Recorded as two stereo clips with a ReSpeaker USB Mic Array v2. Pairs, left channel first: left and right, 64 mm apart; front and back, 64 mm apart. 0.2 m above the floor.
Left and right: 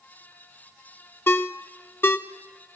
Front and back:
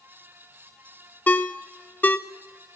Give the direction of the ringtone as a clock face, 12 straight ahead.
10 o'clock.